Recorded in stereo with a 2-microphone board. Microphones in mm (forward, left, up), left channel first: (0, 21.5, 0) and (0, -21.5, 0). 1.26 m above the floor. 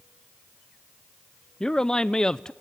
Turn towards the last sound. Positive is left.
turn(degrees=15)  # may be behind; listen again after turning